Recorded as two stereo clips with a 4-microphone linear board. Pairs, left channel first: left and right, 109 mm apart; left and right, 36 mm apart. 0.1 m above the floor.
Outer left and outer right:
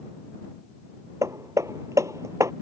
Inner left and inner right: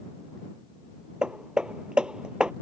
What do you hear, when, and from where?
1.2 s hammering: 30° right (ahead or behind)